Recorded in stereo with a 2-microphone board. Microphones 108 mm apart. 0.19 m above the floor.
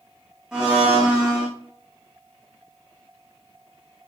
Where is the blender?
5° right (ahead or behind), 2 m.